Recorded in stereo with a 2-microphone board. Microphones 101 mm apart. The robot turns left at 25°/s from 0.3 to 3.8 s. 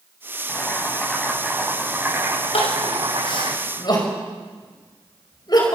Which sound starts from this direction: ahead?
Boiling, at 0.5 s.